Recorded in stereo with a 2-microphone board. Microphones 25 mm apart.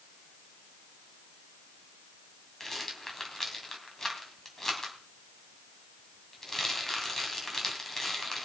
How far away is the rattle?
About 2.5 m.